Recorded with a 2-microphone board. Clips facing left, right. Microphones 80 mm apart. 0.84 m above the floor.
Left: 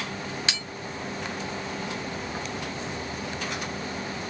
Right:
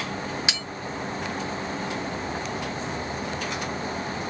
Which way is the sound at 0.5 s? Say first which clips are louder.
Right 1 dB; 15° right (ahead or behind).